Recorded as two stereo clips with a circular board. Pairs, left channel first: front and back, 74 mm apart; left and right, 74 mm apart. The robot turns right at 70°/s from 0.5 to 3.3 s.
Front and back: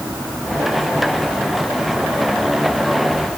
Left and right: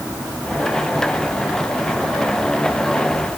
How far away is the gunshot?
I don't hear a gunshot.